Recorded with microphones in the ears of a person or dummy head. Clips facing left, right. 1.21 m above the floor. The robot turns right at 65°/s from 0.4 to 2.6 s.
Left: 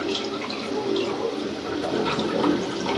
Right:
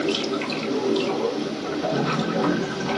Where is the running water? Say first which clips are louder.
Right 3 dB; 75° right, 2 m; by 3.0 s 65° left, 2 m.